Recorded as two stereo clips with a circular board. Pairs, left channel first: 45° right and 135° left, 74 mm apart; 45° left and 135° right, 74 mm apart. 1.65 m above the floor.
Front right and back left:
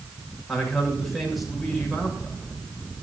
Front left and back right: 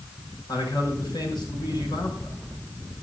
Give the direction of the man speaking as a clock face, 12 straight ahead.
10 o'clock.